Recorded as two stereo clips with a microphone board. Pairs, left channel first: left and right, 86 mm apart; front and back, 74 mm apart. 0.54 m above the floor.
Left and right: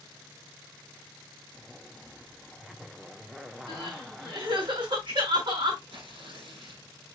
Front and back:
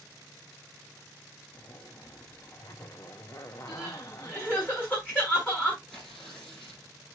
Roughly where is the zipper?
Ahead.